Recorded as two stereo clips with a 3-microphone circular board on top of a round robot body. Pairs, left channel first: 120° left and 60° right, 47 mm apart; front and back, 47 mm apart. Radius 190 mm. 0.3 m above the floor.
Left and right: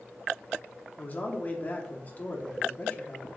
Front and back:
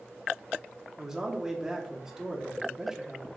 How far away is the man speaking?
About 1.2 m.